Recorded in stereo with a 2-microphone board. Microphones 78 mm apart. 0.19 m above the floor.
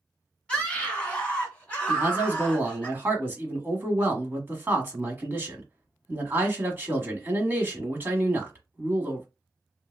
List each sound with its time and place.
0.5 s a scream: 15° left (ahead or behind), 1.2 m; by 2.9 s 20° left (ahead or behind), 2.5 m
1.9 s a man speaking: 25° right (ahead or behind), 1.2 m